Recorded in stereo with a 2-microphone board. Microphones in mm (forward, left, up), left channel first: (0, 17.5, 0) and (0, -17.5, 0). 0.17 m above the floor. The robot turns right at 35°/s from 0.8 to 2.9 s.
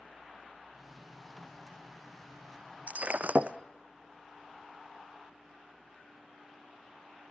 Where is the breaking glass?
55° right (ahead or behind), 0.8 m; by 3.6 s 50° right (ahead or behind), 0.8 m.